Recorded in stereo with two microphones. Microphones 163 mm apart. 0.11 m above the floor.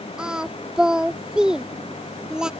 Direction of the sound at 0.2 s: 5° right (ahead or behind).